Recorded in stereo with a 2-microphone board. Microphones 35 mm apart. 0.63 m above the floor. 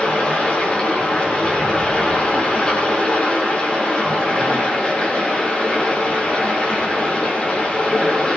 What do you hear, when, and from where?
0.0 s running water: 30° left (ahead or behind), 9.5 m